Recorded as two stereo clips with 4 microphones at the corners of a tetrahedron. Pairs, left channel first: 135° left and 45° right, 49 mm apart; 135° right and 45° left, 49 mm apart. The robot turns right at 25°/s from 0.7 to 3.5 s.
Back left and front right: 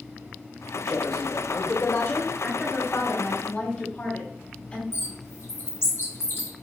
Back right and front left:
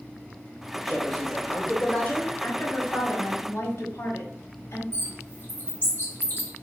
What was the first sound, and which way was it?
A man speaking, 130° left.